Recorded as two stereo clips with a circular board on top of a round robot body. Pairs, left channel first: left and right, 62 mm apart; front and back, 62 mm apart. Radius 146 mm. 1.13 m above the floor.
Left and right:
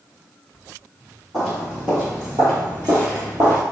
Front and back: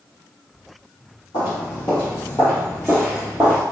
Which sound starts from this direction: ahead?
Footsteps, at 1.3 s.